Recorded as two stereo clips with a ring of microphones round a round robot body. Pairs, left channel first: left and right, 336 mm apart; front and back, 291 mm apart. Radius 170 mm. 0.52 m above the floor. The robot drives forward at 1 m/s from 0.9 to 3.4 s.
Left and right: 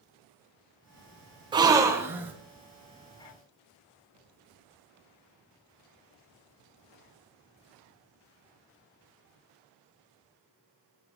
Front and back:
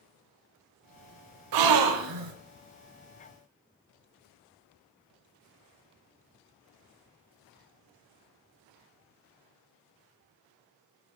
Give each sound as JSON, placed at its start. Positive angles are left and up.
{"t": 1.5, "sound": "a gasp", "azimuth_deg": -165, "distance_m": 0.6}